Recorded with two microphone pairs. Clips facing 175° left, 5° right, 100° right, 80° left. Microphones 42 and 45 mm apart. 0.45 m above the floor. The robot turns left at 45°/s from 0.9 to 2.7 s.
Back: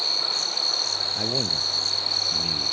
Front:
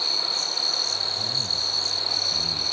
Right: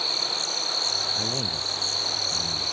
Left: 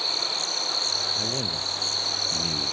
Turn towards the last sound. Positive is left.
turn(degrees=100)